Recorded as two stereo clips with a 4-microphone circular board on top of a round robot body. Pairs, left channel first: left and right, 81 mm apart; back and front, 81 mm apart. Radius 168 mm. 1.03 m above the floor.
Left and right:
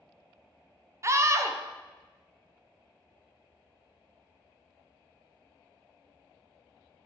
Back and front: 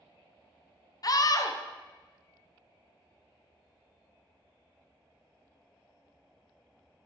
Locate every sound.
1.0 s a scream: 140° right, 0.7 m